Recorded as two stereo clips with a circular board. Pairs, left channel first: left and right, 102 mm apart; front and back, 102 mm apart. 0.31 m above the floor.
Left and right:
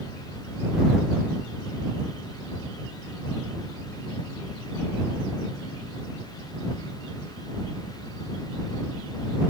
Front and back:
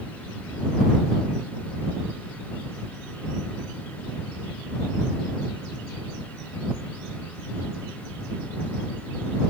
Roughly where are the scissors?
No scissors in this recording.